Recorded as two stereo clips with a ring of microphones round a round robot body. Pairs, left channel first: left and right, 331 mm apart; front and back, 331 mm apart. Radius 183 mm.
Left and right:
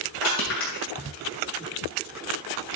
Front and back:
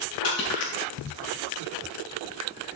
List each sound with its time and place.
0.2 s crushing: 40° left, 7 m